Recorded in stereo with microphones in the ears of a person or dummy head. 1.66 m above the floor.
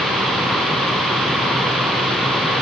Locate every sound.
Only background noise.